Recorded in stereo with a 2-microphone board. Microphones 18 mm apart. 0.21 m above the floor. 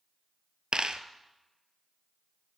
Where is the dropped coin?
55° right (ahead or behind), 0.6 m.